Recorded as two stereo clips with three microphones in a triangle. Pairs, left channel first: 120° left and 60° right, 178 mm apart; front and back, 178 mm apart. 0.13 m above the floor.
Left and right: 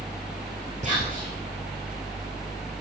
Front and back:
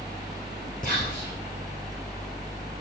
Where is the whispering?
20° right, 2.5 m.